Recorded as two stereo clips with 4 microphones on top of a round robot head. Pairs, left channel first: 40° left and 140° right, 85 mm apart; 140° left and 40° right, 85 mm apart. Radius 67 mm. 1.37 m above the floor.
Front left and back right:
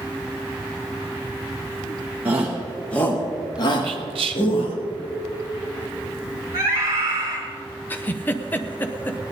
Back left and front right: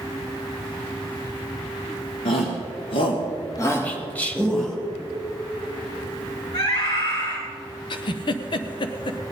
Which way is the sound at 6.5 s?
175° left.